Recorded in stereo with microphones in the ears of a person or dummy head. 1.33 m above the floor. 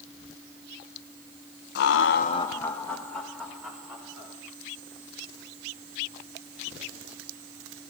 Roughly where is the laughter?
Left.